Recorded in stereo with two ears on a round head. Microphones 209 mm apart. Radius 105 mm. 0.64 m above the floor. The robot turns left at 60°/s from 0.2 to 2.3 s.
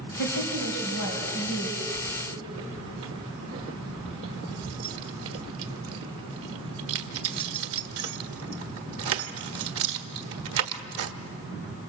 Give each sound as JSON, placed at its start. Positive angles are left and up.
{"t": 0.2, "sound": "a woman speaking", "azimuth_deg": 125, "distance_m": 3.5}
{"t": 1.9, "sound": "keys jangling", "side_deg": -80, "distance_m": 1.3}